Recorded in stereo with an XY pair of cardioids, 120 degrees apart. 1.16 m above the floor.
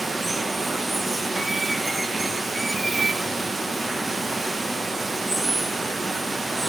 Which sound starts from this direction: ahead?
Running water, at 0.0 s.